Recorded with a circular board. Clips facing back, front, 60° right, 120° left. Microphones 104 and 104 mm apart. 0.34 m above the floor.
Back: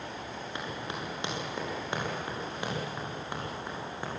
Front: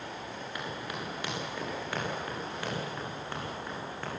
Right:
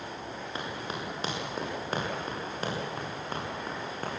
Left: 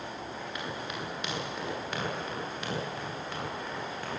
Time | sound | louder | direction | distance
0.6 | running footsteps | back 1 dB, right 2 dB | 115° right | 9.5 m